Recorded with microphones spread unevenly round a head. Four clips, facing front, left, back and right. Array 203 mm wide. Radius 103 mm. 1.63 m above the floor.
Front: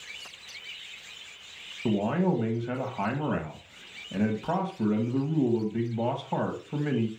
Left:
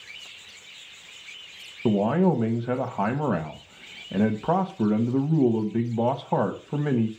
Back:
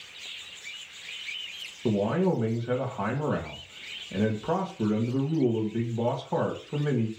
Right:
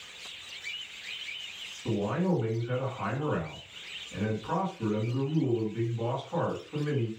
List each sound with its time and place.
1.9 s a man speaking: 90° left, 1.9 m